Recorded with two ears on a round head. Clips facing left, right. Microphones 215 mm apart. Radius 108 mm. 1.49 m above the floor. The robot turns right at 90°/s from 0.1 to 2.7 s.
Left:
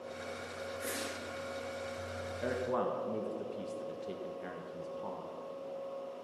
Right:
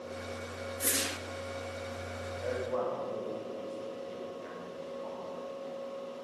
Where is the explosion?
No explosion in this recording.